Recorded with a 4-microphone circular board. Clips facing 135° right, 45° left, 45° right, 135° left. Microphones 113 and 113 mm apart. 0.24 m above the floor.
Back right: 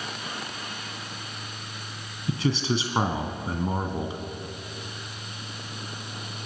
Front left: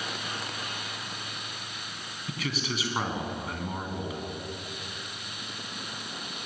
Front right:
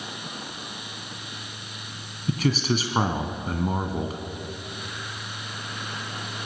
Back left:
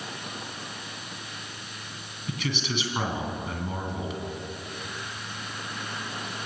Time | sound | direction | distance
2.3 | a man speaking | 85° right | 1.7 m